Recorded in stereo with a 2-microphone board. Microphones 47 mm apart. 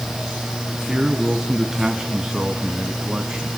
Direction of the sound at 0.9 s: 10° right (ahead or behind).